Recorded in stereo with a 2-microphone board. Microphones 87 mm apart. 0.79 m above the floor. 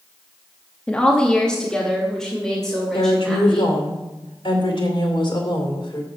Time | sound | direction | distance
0.9 | a woman speaking | 10° left (ahead or behind) | 0.8 m
2.9 | a woman speaking | 65° left (ahead or behind) | 2.5 m